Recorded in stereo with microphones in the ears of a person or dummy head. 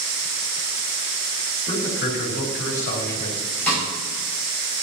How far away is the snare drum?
About 5.5 m.